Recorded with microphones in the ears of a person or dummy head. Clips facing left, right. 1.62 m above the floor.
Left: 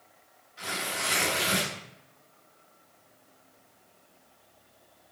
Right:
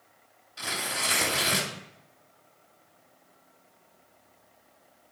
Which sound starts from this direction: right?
Tearing paper, at 0.6 s.